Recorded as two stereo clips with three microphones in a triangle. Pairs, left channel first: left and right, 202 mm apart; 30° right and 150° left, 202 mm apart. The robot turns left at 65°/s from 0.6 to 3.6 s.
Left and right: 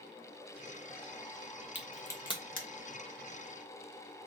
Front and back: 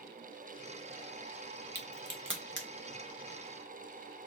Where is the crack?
170° right, 1.1 m; by 2.7 s 130° left, 1.1 m.